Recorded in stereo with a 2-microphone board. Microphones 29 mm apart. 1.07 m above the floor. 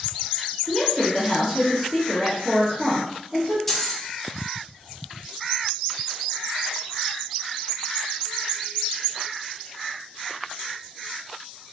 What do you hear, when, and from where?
0.7 s a woman speaking: 20° right (ahead or behind), 0.9 m
3.7 s keys jangling: 10° left (ahead or behind), 0.7 m